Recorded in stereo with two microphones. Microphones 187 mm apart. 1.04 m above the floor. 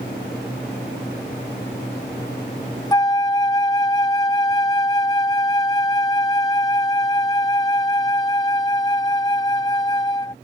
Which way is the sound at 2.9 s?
20° left (ahead or behind).